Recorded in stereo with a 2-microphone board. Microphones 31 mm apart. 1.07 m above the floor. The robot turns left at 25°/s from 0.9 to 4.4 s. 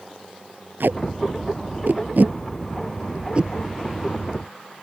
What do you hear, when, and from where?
0.8 s tape being pulled: 85° right; by 3.5 s 30° right (ahead or behind)